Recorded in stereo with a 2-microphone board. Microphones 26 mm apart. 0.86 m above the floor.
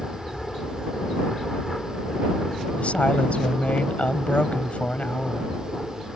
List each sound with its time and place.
0.0 s an aircraft: 10° left (ahead or behind)
2.8 s a woman speaking: 70° left (ahead or behind)